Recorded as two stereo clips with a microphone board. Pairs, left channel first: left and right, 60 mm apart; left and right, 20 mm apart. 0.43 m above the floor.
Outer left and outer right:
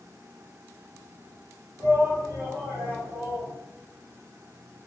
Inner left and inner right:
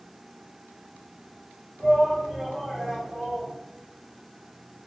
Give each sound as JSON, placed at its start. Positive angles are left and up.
{"t": 1.8, "sound": "a shout", "side_deg": -55, "distance_m": 1.4}